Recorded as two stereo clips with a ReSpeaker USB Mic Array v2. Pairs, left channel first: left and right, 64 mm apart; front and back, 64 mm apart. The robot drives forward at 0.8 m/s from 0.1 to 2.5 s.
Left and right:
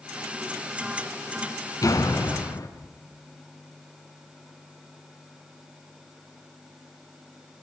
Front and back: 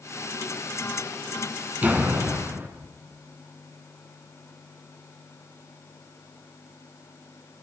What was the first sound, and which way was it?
A door slam, 115° left.